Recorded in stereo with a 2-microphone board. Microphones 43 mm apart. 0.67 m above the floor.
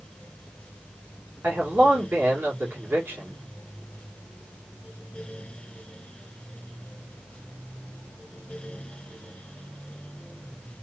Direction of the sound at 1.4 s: 55° right (ahead or behind).